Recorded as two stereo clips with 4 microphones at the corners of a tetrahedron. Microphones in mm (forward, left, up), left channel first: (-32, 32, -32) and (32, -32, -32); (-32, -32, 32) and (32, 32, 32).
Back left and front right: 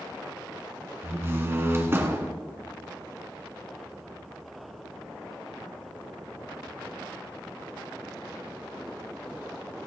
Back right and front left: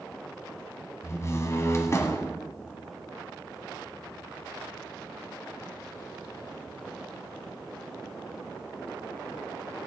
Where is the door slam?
95° right, 1.4 m.